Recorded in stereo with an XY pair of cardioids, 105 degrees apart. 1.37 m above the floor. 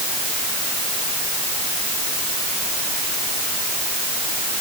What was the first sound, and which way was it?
Only background noise.